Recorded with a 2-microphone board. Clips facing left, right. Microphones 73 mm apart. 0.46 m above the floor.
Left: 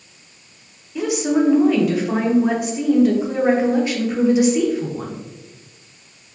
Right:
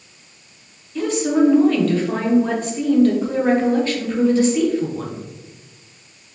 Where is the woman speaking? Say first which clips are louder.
Right 1 dB; 10° left (ahead or behind), 0.7 m.